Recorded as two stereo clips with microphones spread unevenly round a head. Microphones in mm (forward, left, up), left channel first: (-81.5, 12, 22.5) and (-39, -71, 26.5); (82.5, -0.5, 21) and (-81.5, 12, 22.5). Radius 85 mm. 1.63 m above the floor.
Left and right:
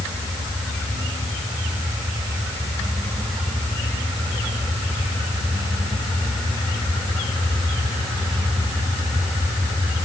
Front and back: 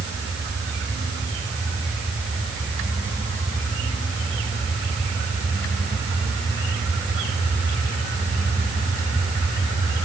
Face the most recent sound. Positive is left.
No sound to turn to.